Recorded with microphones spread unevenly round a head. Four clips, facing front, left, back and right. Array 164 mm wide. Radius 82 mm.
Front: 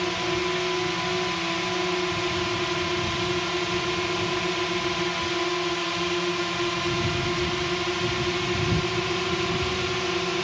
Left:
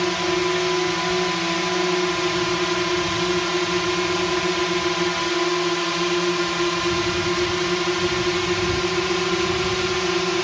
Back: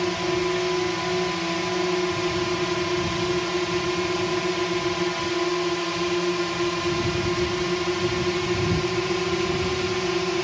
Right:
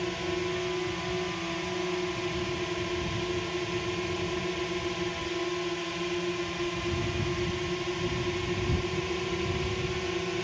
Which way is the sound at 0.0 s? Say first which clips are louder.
Left 10 dB, back 3 dB; 110° left.